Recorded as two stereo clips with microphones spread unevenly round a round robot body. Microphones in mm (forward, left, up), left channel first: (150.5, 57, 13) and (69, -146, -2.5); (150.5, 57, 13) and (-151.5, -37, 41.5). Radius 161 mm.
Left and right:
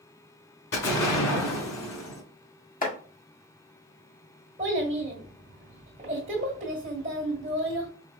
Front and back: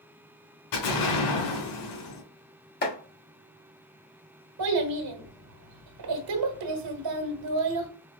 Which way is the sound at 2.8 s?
35° left.